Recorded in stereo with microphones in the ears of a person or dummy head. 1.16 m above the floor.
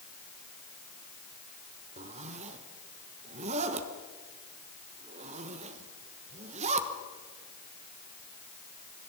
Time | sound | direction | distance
2.0 | a zipper | 35° right (ahead or behind) | 1.3 m